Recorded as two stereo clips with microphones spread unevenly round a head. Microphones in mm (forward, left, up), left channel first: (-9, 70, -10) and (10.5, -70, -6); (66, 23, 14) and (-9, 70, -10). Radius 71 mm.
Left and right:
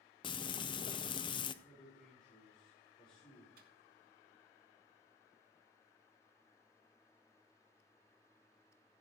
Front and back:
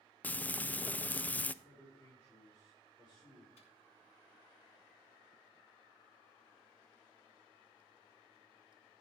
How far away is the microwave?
About 2 m.